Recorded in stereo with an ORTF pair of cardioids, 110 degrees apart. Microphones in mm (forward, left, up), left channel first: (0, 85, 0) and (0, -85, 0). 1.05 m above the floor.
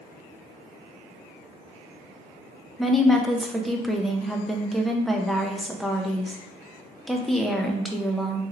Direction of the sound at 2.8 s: Straight ahead.